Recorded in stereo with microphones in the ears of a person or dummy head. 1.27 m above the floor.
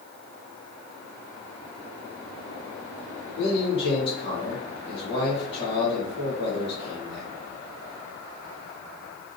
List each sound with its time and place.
3.4 s a man speaking: 35° left (ahead or behind), 1.9 m